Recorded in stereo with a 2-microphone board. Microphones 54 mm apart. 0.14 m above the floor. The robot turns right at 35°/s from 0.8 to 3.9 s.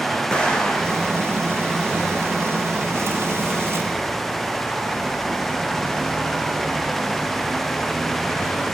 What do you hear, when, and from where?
0.3 s an explosion: 15° left (ahead or behind), 3.5 m; by 1.1 s 5° left (ahead or behind), 3.5 m